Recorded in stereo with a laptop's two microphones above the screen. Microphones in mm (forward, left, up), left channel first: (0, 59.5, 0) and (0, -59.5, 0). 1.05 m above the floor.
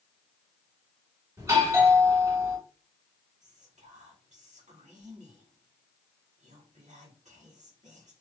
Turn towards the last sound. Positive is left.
turn(degrees=-85)